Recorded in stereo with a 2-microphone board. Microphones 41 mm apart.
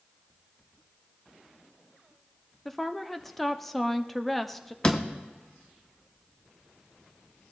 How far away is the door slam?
About 1.0 m.